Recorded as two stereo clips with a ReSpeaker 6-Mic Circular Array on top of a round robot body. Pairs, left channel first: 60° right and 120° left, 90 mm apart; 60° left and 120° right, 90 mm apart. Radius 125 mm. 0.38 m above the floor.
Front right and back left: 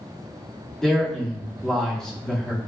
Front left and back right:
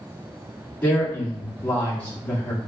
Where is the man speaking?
10° left, 1.4 m.